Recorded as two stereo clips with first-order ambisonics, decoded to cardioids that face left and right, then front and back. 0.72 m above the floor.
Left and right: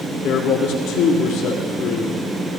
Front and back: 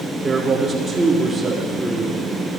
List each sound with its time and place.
0.2 s a man speaking: 100° left, 1.8 m